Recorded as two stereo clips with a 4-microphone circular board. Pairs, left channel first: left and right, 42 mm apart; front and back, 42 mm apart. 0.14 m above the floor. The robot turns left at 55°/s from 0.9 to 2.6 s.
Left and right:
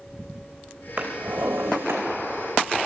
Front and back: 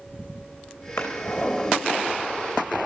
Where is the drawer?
25° right, 3 m; by 2.0 s 80° right, 3 m.